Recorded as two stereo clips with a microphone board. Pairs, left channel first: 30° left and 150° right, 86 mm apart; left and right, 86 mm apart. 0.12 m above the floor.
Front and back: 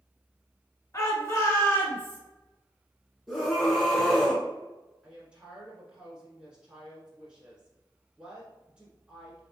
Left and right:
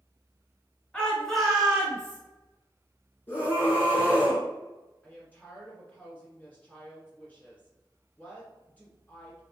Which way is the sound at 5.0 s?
145° left.